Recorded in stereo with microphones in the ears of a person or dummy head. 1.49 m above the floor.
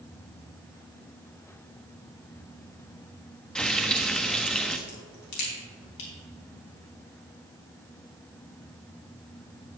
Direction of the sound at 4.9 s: 65° left (ahead or behind).